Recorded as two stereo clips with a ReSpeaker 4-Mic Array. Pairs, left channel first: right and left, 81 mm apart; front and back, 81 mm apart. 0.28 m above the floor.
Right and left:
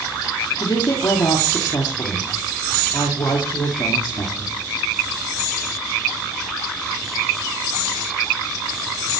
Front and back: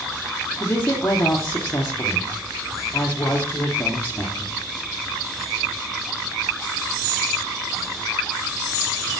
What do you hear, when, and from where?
0.6 s a woman speaking: 65° right, 8 m